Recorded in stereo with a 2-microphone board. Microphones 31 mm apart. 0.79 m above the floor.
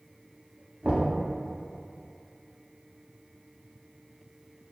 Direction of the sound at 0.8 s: 30° right (ahead or behind).